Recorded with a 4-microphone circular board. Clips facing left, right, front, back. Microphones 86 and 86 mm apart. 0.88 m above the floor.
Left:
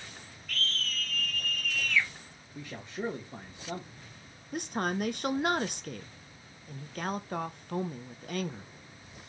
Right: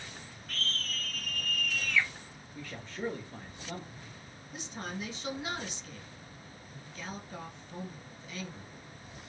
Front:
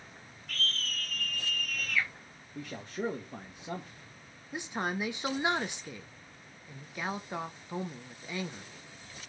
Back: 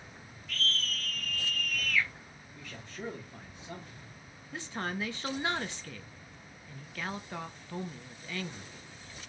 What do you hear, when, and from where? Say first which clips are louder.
0.5 s a scream: left 2 dB, back 1 dB; 40° right, 2 m; by 2.1 s 55° right, 0.9 m
2.5 s a man speaking: left 2 dB, front 7 dB; 25° left, 1.2 m
4.5 s a woman speaking: left 9 dB, front 2 dB; 70° left, 0.7 m